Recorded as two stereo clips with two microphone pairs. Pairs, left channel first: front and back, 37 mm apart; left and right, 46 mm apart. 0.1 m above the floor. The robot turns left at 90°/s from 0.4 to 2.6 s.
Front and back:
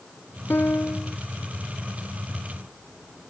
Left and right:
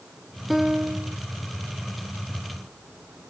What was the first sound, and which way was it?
A piano, straight ahead.